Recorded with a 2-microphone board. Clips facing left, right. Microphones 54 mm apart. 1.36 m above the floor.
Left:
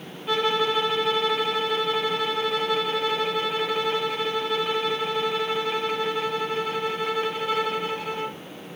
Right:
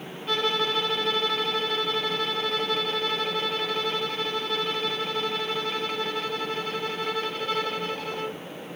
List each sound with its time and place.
0.3 s a violin: 10° left (ahead or behind), 0.9 m